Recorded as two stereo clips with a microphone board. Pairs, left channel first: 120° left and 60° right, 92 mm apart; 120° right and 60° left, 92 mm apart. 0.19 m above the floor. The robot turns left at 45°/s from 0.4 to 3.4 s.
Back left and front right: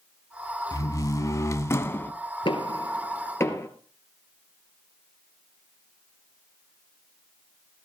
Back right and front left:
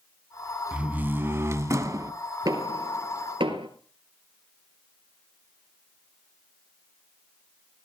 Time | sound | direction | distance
0.7 | a door slam | 125° left | 0.8 m
2.5 | knocking | 105° left | 2.5 m